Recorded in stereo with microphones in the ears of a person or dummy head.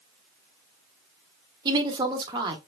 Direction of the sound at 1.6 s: 25° right (ahead or behind).